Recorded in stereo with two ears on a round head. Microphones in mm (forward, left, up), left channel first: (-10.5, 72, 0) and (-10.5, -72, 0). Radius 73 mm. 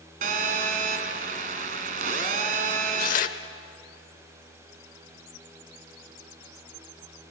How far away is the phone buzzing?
About 1.5 m.